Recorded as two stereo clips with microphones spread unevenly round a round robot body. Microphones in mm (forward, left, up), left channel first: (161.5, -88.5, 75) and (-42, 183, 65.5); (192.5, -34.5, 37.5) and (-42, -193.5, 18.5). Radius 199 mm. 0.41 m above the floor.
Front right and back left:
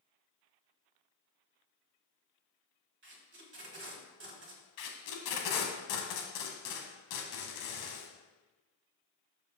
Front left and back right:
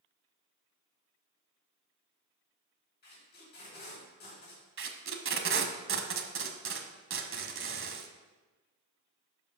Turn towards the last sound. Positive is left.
turn(degrees=-95)